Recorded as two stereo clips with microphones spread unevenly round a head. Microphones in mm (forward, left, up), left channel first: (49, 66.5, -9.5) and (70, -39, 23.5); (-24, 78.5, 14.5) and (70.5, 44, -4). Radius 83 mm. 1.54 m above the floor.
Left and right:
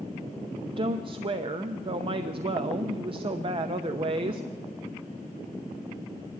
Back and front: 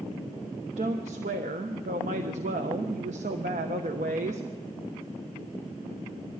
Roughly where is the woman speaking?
Ahead right.